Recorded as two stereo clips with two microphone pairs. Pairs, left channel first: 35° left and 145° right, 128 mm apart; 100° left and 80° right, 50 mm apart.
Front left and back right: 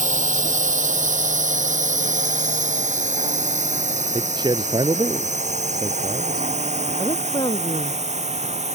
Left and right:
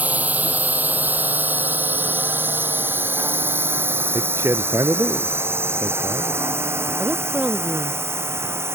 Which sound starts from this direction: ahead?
A woman speaking, at 7.0 s.